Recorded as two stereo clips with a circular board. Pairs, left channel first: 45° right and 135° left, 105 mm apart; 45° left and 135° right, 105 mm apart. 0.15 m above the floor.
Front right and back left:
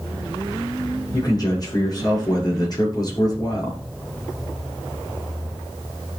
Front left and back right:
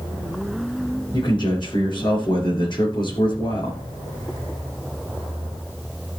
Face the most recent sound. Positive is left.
turn(degrees=5)